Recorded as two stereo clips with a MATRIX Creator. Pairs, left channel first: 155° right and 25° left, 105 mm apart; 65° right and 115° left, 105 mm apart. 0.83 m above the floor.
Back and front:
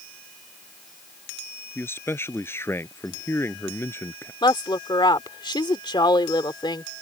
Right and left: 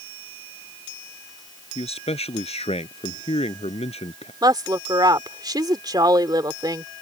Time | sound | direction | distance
1.8 | a man speaking | 90° right | ?
4.4 | a woman speaking | 160° left | ?